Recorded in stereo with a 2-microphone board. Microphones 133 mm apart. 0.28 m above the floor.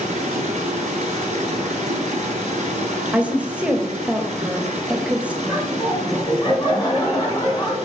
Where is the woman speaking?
10° right (ahead or behind), 0.9 m.